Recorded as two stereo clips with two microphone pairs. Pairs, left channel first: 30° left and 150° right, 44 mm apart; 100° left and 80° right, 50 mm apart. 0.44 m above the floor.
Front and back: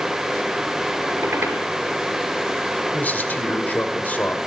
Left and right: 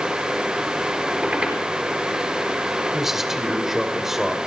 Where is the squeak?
150° right, 4.5 m.